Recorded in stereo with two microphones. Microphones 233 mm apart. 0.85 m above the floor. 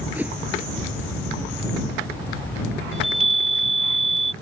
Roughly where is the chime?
Right.